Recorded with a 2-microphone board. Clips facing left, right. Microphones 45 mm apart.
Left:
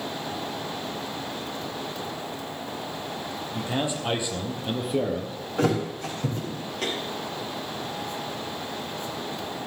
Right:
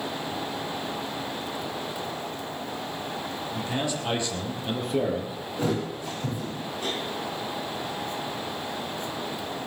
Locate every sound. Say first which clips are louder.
3.5 s a man speaking: left 2 dB; 20° left (ahead or behind), 4.5 m; by 5.4 s 5° right (ahead or behind), 3.5 m
5.6 s a thud: left 4 dB; 70° left (ahead or behind), 9.5 m